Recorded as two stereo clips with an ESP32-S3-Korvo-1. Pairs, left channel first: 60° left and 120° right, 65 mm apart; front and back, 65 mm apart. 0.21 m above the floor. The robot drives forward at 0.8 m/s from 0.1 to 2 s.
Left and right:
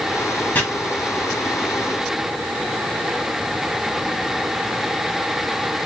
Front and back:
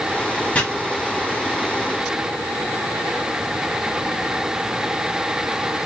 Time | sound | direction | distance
0.6 | chopping | 40° left | 1.0 m